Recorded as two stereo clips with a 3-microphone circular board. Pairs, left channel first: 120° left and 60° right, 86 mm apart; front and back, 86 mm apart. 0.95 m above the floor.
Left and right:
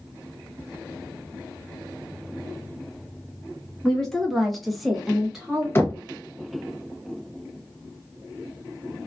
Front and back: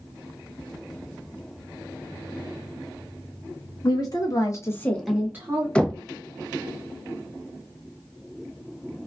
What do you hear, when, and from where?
3.8 s a woman speaking: 35° left, 1.5 m; by 5.7 s 140° right, 0.9 m
5.8 s knocking: 75° left, 0.5 m